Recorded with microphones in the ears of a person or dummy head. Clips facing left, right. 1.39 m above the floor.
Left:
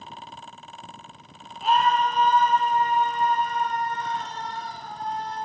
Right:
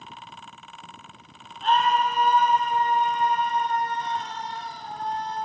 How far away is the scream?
About 1.6 m.